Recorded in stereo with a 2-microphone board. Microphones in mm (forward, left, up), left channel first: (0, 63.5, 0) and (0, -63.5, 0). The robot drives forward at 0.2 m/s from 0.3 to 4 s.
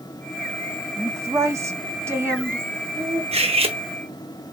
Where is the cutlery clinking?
50° right (ahead or behind), 0.6 m; by 3.8 s 45° right (ahead or behind), 0.6 m.